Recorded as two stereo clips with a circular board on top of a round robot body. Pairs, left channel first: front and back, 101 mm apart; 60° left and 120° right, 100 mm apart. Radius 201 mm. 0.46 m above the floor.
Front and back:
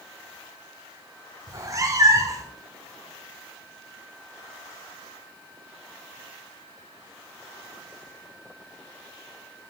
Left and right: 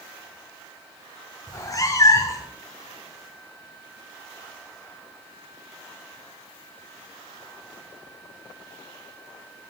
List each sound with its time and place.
1.5 s a cat meowing: 120° left, 0.9 m